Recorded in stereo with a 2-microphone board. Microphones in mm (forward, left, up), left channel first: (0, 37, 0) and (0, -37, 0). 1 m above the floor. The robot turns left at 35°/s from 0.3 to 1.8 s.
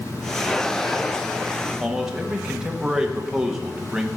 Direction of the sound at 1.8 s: 5° right (ahead or behind).